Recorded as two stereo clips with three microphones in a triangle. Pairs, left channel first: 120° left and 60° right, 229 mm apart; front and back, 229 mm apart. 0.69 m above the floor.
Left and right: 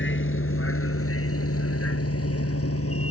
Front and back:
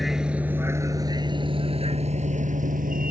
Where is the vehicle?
90° left; by 3.1 s 130° left.